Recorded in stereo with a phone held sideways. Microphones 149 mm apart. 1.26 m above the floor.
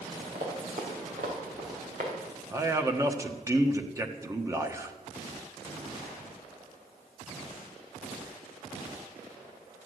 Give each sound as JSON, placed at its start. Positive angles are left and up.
{"t": 0.3, "sound": "running footsteps", "side_deg": -70, "distance_m": 4.5}
{"t": 2.5, "sound": "a man speaking", "side_deg": -20, "distance_m": 1.3}